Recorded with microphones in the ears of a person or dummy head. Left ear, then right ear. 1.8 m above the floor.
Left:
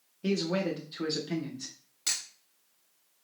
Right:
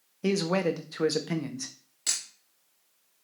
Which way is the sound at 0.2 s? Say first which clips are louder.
Right 4 dB; 30° right (ahead or behind).